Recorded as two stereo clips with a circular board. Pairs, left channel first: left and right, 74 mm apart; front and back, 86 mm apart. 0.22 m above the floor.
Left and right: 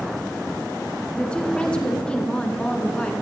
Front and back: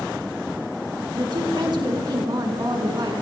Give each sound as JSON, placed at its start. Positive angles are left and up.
{"t": 1.1, "sound": "a woman speaking", "azimuth_deg": 165, "distance_m": 2.0}